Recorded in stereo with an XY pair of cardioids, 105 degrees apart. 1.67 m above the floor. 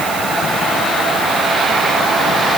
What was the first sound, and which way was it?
Only background noise.